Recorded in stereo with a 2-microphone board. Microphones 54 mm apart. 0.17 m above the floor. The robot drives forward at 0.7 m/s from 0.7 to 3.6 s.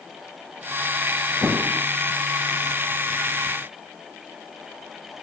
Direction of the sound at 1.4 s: 20° right (ahead or behind).